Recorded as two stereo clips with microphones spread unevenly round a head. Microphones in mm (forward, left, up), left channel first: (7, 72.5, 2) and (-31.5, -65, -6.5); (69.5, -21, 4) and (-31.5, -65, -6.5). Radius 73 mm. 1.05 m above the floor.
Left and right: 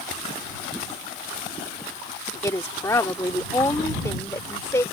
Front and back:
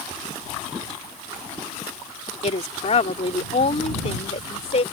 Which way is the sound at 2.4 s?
5° left.